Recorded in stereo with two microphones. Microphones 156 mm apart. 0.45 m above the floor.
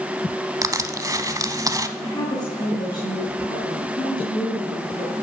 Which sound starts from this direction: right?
Crushing, at 0.6 s.